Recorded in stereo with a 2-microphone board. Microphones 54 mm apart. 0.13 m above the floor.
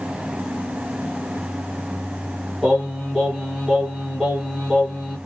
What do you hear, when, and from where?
2.6 s singing: 5° right (ahead or behind), 2.0 m